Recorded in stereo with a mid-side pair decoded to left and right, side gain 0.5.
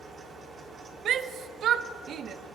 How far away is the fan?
About 2 m.